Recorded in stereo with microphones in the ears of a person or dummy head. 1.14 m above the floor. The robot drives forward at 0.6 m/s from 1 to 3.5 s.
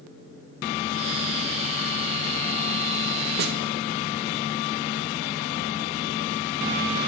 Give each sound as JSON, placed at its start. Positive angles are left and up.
{"t": 3.4, "sound": "a snare drum", "side_deg": -55, "distance_m": 2.0}